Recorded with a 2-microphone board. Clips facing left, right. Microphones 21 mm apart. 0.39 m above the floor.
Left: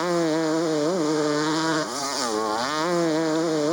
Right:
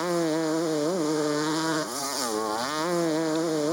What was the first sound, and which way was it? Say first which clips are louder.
A motorcycle: left 3 dB; 15° left (ahead or behind).